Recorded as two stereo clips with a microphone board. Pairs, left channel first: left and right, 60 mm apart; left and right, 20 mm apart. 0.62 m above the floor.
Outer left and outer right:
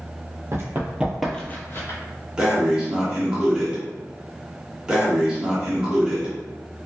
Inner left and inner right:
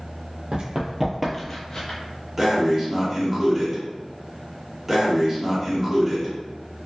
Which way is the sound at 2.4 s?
15° right (ahead or behind).